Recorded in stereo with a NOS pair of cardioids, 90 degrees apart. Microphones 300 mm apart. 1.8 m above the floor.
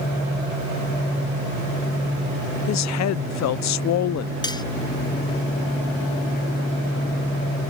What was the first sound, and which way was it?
A woman speaking, 65° left.